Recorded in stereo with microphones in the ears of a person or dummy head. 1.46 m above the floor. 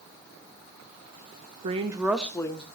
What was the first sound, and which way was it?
A woman speaking, 40° right (ahead or behind).